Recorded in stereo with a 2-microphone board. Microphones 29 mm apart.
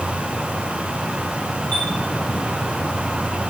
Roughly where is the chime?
Left.